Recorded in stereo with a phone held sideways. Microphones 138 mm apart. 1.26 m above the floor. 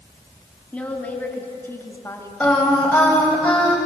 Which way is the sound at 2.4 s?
10° left (ahead or behind).